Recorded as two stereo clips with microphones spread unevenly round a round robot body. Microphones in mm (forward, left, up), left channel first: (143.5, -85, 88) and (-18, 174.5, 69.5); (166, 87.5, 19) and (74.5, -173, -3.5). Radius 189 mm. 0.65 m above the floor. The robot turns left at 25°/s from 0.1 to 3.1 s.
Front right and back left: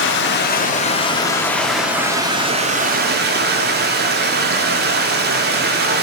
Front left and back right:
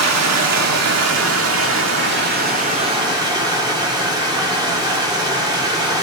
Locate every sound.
0.0 s running water: 110° right, 1.1 m; by 6.0 s 175° left, 1.1 m